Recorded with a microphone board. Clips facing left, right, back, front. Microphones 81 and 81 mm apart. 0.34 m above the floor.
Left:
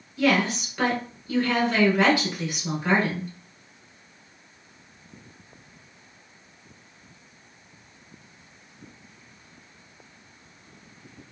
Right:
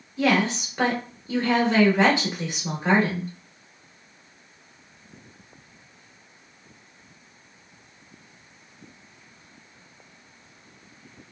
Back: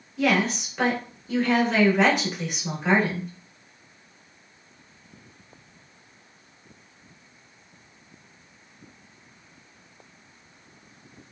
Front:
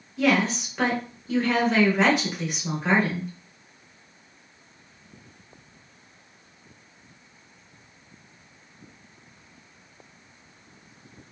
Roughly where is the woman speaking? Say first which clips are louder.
Even, front 1 dB; right.